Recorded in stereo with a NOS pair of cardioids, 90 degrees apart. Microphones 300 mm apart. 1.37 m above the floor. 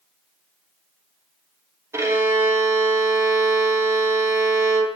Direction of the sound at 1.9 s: 10° right.